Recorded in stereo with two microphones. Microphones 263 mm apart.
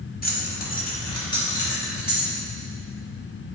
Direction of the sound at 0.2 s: 35° left (ahead or behind).